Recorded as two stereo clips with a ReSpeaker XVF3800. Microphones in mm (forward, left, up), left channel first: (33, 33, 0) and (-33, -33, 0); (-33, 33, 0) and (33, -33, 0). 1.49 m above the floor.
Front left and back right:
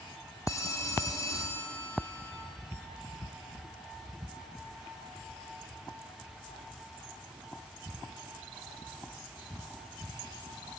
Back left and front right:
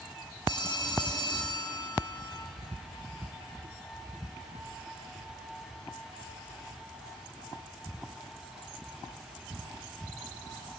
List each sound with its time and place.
0.5 s a phone ringing: 100° left, 4 m